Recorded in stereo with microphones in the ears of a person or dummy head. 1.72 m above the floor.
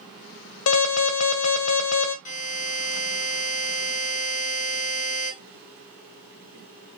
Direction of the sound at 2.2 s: 45° left (ahead or behind).